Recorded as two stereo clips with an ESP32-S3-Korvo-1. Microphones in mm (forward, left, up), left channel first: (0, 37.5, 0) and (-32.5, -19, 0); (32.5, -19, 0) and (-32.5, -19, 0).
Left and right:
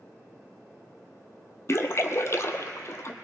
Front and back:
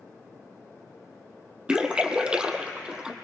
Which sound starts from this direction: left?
A splash, at 1.7 s.